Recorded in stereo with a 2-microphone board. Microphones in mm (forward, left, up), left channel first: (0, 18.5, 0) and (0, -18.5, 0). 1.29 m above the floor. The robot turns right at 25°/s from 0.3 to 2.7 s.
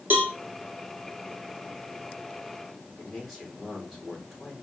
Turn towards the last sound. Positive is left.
turn(degrees=-5)  # may be behind; listen again after turning